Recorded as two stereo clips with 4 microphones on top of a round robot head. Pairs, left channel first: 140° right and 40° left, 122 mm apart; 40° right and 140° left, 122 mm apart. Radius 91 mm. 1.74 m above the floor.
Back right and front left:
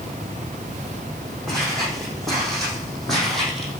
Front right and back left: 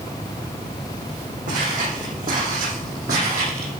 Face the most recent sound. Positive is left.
turn(degrees=130)